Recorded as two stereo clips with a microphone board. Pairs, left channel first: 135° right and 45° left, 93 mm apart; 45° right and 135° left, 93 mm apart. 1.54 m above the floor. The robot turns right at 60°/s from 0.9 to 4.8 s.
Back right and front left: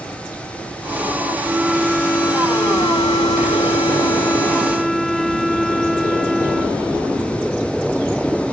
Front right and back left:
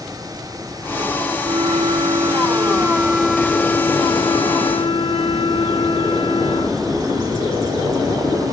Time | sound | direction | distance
1.4 | a flute | 110° left | ?